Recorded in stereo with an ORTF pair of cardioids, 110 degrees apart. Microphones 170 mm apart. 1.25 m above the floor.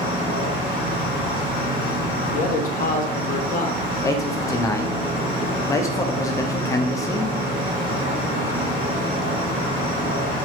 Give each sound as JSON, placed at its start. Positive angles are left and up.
{"t": 0.0, "sound": "an insect", "azimuth_deg": -65, "distance_m": 1.3}
{"t": 2.3, "sound": "a man speaking", "azimuth_deg": 55, "distance_m": 0.6}
{"t": 4.0, "sound": "a man speaking", "azimuth_deg": 20, "distance_m": 0.5}